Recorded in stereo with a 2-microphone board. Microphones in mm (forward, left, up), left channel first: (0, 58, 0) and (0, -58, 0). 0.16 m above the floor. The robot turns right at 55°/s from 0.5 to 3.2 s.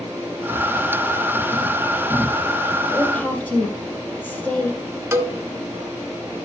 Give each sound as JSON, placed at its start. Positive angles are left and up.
{"t": 2.9, "sound": "a woman speaking", "side_deg": 0, "distance_m": 4.5}
{"t": 5.1, "sound": "a cowbell", "side_deg": -20, "distance_m": 0.9}